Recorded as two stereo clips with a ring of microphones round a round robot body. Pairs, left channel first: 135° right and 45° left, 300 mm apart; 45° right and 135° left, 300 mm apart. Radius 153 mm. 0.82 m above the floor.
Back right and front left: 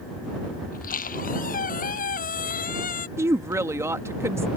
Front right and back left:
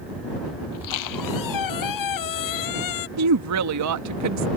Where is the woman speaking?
125° left.